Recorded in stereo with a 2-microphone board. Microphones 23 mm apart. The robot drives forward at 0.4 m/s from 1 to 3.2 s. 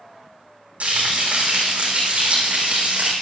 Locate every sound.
0.8 s frying: 80° right, 4.5 m; by 3.1 s 70° right (ahead or behind), 4.5 m